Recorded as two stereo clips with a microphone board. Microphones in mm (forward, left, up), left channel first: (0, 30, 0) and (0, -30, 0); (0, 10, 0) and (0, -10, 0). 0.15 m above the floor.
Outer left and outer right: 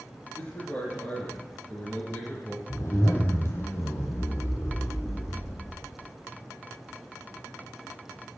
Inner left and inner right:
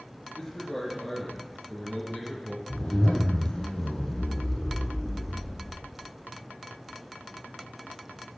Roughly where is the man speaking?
Left.